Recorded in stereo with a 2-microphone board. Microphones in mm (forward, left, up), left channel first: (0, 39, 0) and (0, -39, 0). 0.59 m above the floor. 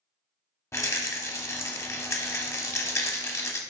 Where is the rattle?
35° left (ahead or behind), 0.5 m.